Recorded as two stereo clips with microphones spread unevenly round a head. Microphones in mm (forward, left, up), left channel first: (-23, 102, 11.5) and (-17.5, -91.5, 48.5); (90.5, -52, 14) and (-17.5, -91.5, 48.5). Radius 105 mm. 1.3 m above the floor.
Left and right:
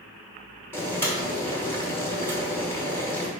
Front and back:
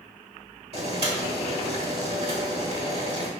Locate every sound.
0.7 s boiling: 175° left, 1.6 m